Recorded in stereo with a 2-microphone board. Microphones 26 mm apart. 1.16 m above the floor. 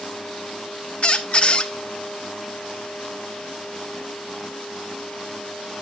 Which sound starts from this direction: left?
A squeak, at 1.0 s.